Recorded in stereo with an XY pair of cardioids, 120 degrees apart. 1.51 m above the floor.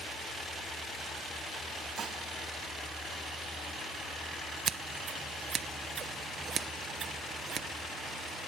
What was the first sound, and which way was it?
Dishes clattering, 50° right.